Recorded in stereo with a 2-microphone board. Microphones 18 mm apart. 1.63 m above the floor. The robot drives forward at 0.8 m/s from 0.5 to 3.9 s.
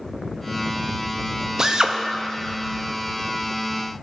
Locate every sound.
1.6 s a drill: 30° right (ahead or behind), 0.8 m; by 2.0 s 50° right (ahead or behind), 0.5 m